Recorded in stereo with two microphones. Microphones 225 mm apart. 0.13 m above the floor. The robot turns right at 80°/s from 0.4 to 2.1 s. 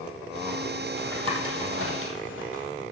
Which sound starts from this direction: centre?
Tapping, at 1.0 s.